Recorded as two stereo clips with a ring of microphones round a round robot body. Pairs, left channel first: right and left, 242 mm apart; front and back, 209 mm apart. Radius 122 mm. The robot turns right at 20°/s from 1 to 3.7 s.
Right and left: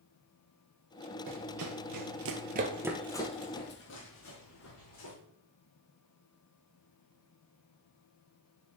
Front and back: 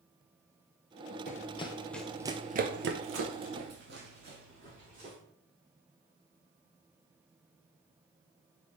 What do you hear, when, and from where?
1.3 s running footsteps: 50° left, 1.5 m; by 5.2 s 120° right, 2.5 m